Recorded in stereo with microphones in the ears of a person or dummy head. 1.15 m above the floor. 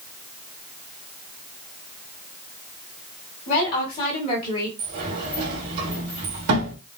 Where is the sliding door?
70° right (ahead or behind), 1.8 m.